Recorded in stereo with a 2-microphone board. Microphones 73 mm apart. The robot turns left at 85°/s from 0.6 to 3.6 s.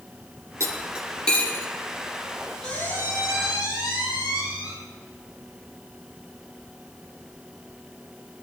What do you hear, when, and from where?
0.6 s cutlery clinking: 40° right (ahead or behind), 2 m; by 1.7 s 40° left (ahead or behind), 2 m
2.6 s a squeak: 170° left, 5 m; by 4.7 s 85° left, 5 m